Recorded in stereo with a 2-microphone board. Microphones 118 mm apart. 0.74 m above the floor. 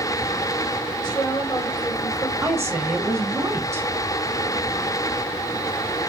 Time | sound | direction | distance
1.0 | a woman speaking | 35° left (ahead or behind) | 2.5 m
2.4 | a woman speaking | 25° right (ahead or behind) | 1.4 m